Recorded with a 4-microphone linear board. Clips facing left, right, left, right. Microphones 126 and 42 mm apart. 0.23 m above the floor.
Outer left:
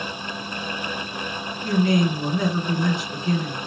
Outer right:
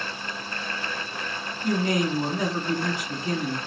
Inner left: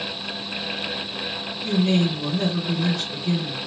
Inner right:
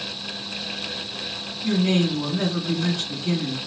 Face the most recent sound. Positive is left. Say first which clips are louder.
# outer left 4 dB, even
turn(degrees=-40)  # may be behind; listen again after turning